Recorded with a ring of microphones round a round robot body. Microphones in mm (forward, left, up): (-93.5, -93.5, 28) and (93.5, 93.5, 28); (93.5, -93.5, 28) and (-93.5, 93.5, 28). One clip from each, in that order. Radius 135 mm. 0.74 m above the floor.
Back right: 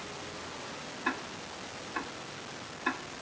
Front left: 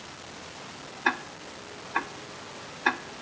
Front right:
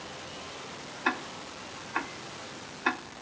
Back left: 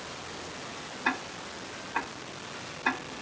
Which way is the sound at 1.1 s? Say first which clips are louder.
Front left 7 dB, even; 25° left.